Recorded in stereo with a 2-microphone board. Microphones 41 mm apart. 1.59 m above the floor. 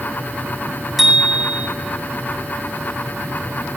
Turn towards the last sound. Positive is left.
turn(degrees=-5)  # may be behind; listen again after turning